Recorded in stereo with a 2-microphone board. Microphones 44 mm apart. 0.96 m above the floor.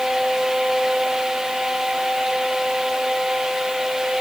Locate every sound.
Only background noise.